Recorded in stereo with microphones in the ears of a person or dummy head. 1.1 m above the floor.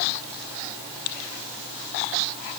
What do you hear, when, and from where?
Only background noise.